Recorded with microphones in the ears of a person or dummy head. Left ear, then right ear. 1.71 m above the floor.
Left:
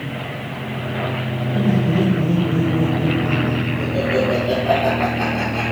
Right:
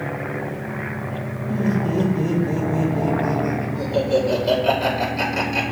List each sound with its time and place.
1.5 s laughter: 70° right (ahead or behind), 2 m